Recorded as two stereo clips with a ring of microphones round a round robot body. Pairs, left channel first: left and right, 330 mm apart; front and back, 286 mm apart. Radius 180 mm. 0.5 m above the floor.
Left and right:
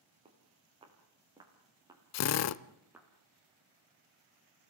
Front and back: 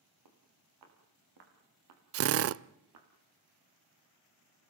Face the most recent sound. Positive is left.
turn(degrees=135)